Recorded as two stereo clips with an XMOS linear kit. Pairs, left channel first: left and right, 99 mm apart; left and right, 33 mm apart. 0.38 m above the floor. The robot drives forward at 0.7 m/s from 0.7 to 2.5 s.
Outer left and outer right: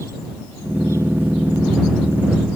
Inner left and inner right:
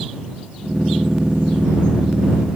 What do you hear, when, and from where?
Only background noise.